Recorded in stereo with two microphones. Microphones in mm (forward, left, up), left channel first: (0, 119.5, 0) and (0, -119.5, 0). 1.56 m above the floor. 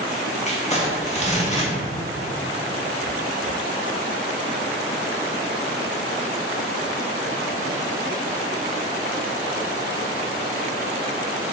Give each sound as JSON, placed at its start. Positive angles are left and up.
{"t": 0.5, "sound": "crumpling", "side_deg": 30, "distance_m": 1.5}